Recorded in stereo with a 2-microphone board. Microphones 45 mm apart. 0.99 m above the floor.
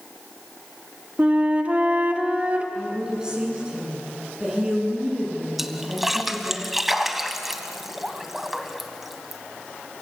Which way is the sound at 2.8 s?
15° right (ahead or behind).